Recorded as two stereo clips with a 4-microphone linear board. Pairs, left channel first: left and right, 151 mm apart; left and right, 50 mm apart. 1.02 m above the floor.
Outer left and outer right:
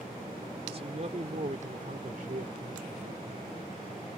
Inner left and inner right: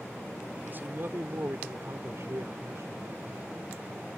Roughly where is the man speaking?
Right.